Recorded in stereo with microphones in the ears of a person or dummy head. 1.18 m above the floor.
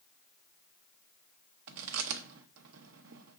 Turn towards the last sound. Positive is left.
turn(degrees=-70)  # may be behind; listen again after turning